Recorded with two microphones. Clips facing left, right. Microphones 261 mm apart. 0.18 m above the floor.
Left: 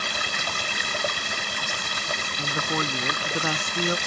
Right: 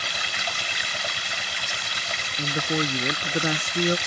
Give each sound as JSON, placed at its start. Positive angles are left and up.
{"t": 0.0, "sound": "running water", "side_deg": 55}
{"t": 2.4, "sound": "a woman speaking", "side_deg": -20}